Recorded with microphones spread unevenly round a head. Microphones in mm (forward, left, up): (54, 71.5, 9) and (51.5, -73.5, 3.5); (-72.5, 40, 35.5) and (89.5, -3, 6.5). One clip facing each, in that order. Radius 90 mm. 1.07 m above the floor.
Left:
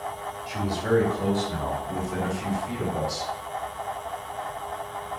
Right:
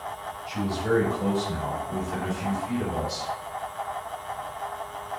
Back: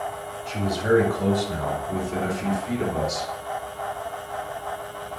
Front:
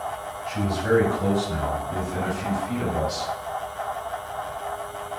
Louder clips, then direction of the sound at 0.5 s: Left 1 dB, back 1 dB; 125° left.